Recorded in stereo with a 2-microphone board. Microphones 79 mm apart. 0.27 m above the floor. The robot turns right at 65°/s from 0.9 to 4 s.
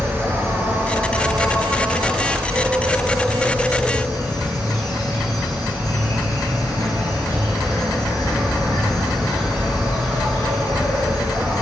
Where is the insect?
145° right, 1.9 m; by 11.6 s 55° left, 1.9 m.